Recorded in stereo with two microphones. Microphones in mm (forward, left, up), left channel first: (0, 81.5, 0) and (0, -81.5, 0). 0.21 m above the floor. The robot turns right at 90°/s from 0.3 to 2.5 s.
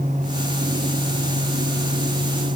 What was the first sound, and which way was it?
Only background noise.